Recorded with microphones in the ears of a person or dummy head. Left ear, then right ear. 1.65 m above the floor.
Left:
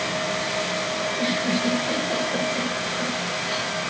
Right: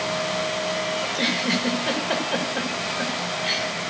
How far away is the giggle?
About 1.7 m.